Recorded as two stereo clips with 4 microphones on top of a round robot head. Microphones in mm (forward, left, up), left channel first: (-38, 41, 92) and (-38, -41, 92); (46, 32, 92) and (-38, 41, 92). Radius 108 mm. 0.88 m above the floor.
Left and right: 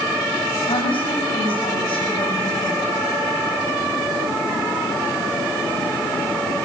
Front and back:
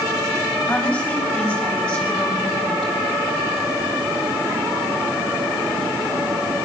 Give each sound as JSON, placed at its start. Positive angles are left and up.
{"t": 0.7, "sound": "a woman speaking", "azimuth_deg": 70, "distance_m": 6.5}